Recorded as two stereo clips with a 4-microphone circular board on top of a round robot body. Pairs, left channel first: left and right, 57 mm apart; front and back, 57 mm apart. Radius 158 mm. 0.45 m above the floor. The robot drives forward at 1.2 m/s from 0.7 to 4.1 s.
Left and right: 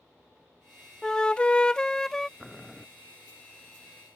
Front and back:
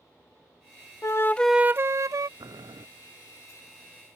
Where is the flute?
10° left; by 2.3 s 175° left.